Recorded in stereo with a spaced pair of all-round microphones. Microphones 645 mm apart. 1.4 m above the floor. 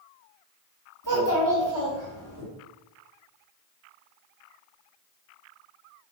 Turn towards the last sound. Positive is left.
turn(degrees=-30)  # may be behind; listen again after turning